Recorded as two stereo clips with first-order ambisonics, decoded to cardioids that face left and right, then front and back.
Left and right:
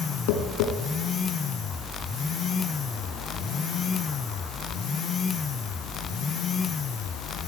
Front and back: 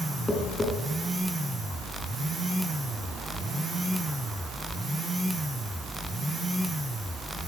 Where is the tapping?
85° left, 3.5 m.